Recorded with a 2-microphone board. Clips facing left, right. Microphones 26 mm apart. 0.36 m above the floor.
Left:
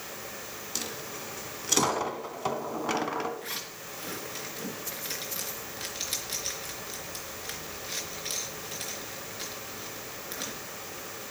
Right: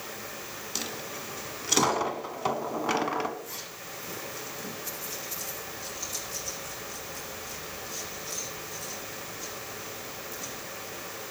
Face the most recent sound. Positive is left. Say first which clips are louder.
# left 2 dB
turn(degrees=65)  # may be behind; listen again after turning